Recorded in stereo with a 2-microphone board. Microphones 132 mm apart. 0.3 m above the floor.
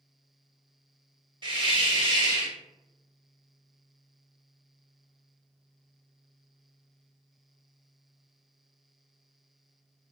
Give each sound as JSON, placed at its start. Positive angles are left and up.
{"t": 1.4, "sound": "a hiss", "side_deg": -40, "distance_m": 0.7}